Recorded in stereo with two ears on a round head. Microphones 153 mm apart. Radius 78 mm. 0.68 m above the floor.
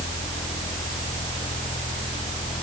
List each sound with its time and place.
Only background noise.